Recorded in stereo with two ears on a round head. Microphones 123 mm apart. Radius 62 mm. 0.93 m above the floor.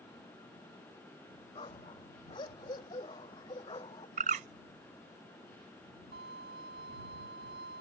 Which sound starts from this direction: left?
A dog barking, at 1.6 s.